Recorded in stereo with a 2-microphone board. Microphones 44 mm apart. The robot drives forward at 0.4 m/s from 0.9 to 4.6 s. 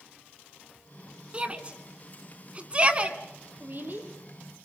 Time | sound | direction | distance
1.3 | a shout | 25° right (ahead or behind) | 1.5 m
3.6 | a woman speaking | 45° right (ahead or behind) | 4.5 m